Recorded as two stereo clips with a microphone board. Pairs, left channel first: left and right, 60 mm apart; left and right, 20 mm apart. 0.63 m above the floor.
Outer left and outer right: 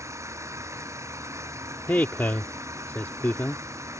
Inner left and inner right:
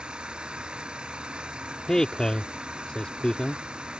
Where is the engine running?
55° right (ahead or behind).